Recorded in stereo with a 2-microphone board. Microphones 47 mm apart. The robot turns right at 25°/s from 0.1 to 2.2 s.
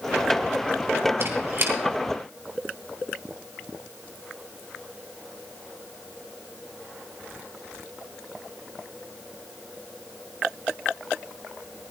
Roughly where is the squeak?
Right.